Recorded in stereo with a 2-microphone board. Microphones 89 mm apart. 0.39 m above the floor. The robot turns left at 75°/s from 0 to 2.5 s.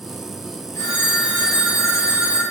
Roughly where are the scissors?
No scissors in this recording.